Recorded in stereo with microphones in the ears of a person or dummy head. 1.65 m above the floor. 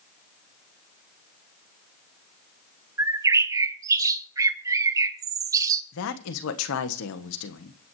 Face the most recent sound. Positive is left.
turn(degrees=75)  # may be behind; listen again after turning